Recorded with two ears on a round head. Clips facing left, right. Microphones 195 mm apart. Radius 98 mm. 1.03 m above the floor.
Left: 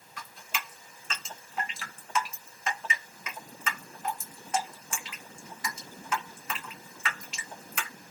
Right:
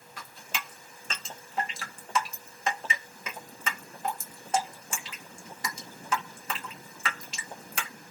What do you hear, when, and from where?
0.2 s dripping: 30° right (ahead or behind), 0.8 m